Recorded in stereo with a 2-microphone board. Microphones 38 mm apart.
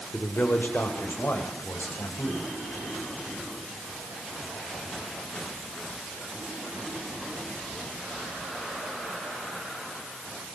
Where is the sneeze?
No sneeze in this recording.